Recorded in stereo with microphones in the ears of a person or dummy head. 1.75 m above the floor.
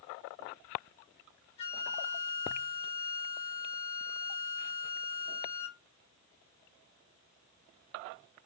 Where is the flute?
35° left (ahead or behind), 1.4 m.